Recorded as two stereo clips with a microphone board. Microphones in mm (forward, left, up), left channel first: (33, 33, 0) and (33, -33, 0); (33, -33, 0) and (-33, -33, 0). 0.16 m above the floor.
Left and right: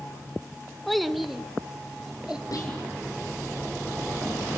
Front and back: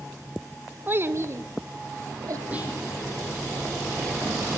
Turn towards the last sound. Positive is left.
turn(degrees=110)